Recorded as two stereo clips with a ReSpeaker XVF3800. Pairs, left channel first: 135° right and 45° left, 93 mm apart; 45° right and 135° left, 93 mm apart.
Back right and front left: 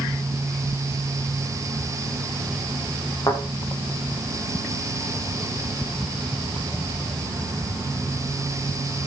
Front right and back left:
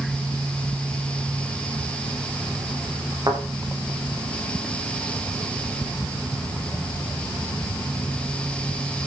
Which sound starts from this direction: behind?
A thud, at 3.3 s.